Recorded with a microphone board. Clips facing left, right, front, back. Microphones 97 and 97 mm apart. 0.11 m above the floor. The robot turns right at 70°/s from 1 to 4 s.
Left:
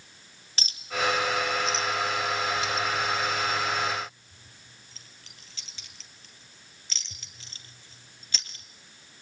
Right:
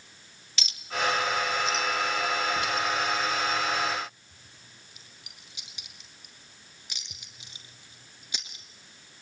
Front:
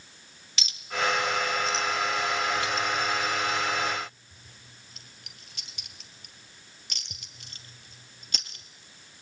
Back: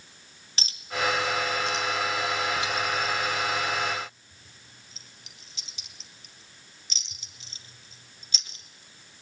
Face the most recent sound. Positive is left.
turn(degrees=-15)